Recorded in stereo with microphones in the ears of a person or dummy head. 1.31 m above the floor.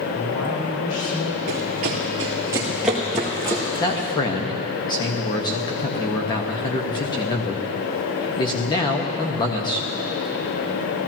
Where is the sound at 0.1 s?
80° left, 4.5 m.